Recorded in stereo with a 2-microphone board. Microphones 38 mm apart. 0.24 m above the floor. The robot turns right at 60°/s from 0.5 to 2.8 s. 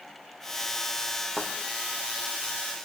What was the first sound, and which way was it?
A thud, 20° right (ahead or behind).